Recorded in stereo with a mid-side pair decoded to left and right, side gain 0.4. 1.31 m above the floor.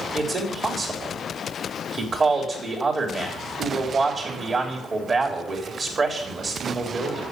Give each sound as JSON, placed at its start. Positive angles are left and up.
{"t": 0.1, "sound": "a man speaking", "azimuth_deg": -45, "distance_m": 3.5}